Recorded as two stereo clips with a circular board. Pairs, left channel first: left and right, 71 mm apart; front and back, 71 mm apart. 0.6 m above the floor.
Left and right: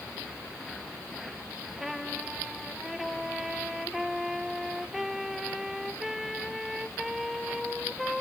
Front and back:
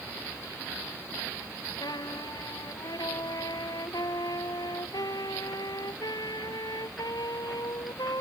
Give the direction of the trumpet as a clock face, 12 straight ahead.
12 o'clock.